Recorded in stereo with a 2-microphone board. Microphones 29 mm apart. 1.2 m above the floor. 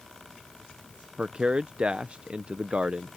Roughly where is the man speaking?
Right.